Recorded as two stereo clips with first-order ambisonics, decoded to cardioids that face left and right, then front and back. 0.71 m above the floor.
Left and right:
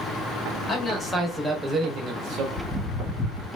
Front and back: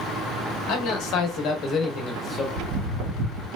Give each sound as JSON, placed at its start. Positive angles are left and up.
{"t": 0.7, "sound": "a man speaking", "azimuth_deg": 15, "distance_m": 1.1}
{"t": 2.6, "sound": "footsteps", "azimuth_deg": 180, "distance_m": 1.5}